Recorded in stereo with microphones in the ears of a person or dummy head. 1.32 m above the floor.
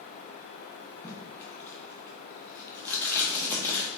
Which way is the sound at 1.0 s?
15° left (ahead or behind).